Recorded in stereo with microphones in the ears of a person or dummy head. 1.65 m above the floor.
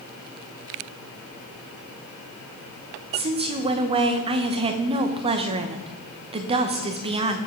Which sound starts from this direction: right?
A woman speaking, at 3.1 s.